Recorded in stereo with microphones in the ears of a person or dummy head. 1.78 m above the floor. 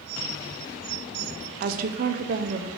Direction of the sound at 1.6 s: 50° right (ahead or behind).